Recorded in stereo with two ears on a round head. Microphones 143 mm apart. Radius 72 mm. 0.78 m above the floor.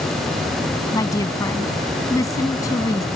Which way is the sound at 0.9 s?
20° left (ahead or behind).